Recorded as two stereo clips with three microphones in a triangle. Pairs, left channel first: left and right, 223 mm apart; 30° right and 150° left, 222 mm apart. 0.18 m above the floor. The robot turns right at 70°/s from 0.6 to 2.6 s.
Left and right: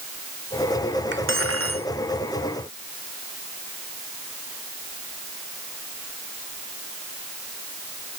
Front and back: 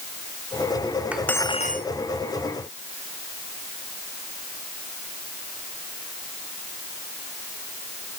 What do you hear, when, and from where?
1.1 s cutlery clinking: 125° right; by 1.9 s 75° right